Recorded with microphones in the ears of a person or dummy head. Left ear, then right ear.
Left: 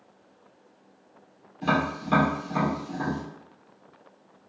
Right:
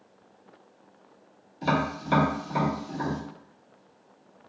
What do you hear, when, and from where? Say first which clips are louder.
1.6 s tapping: left 1 dB; 20° right (ahead or behind), 1.5 m